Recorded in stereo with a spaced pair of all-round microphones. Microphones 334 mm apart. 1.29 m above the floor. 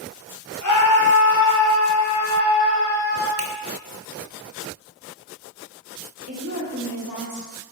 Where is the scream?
60° left (ahead or behind), 1.1 m; by 3.3 s 30° left (ahead or behind), 2 m.